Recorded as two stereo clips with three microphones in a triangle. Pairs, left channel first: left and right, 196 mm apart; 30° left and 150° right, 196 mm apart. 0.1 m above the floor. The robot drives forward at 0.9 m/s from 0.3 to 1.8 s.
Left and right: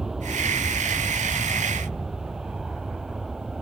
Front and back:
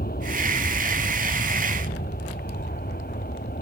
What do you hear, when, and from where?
0.0 s an aircraft: straight ahead; by 3.6 s 5° right